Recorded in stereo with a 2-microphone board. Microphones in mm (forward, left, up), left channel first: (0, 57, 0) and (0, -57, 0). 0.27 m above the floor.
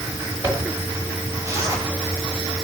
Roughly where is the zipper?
Right.